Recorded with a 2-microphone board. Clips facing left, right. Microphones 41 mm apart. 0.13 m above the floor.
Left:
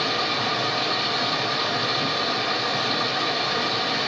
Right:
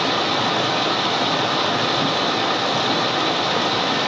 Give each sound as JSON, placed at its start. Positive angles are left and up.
{"t": 0.0, "sound": "running water", "side_deg": -65, "distance_m": 0.8}